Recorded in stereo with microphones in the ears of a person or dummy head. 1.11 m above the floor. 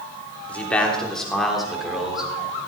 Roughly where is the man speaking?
Centre.